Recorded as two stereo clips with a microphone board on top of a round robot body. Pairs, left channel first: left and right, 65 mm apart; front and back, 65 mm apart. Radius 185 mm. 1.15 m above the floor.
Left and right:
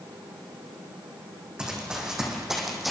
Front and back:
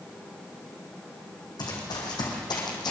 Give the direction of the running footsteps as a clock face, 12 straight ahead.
12 o'clock.